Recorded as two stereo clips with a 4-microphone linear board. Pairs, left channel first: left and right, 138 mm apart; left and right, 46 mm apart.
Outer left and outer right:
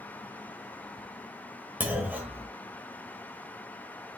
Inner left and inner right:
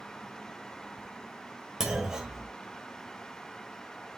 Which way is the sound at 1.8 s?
10° right (ahead or behind).